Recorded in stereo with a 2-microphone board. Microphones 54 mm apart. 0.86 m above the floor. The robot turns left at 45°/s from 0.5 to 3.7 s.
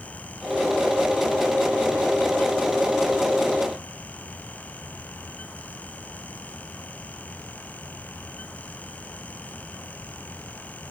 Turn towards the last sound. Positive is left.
No sound to turn to.